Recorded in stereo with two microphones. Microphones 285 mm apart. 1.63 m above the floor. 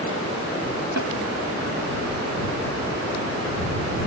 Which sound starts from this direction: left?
A snare drum, at 1.0 s.